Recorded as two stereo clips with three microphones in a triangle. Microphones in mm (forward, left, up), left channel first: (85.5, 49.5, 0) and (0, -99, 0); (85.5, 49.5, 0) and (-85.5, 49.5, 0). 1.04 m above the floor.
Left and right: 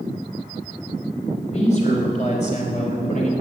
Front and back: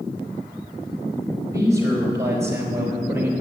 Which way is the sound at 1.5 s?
105° left.